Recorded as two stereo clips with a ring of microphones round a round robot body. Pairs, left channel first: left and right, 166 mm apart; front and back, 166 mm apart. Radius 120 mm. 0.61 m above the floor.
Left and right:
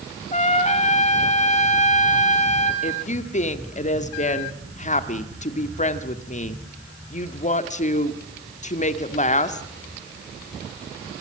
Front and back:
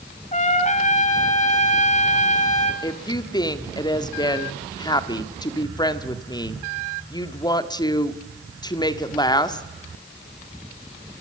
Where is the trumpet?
45° left, 3.5 m.